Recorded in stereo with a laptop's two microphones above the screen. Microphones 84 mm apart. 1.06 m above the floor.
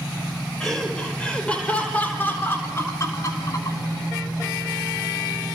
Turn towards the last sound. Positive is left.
turn(degrees=55)  # may be behind; listen again after turning